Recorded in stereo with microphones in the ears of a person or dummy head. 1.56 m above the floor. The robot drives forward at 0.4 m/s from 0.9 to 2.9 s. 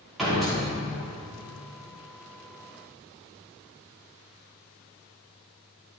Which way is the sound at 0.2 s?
Centre (ahead or behind).